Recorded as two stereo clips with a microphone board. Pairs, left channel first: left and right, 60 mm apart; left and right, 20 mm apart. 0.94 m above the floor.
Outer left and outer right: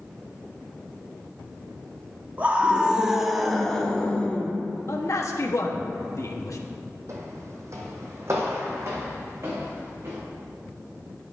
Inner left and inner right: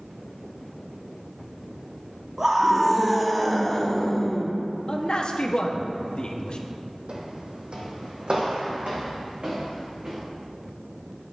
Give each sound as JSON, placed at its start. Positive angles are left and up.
{"t": 2.4, "sound": "a scream", "side_deg": -30, "distance_m": 1.4}
{"t": 4.9, "sound": "a man speaking", "side_deg": 60, "distance_m": 1.2}
{"t": 7.1, "sound": "footsteps", "side_deg": -55, "distance_m": 1.6}